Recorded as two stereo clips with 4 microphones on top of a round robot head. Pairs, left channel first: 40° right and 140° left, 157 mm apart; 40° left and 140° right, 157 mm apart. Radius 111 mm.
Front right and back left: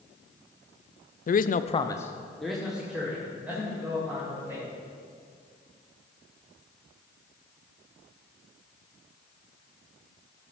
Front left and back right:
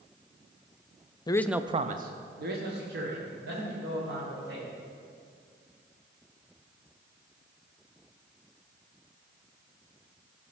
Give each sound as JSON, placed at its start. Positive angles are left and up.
{"t": 1.3, "sound": "a man speaking", "azimuth_deg": -20, "distance_m": 0.7}